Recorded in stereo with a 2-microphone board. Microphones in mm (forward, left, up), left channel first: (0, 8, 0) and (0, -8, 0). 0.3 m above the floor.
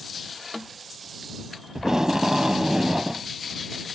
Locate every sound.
1.8 s tape being pulled: 35° right (ahead or behind)